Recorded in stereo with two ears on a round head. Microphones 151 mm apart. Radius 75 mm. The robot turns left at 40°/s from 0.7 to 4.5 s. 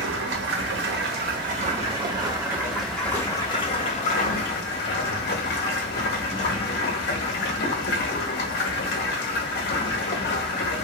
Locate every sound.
0.0 s running water: 95° right, 0.7 m; by 10.8 s 110° left, 0.7 m